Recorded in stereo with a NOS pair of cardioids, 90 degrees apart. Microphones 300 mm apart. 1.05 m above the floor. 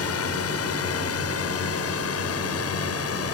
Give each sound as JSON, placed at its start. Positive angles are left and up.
{"t": 0.0, "sound": "a drone", "azimuth_deg": 60}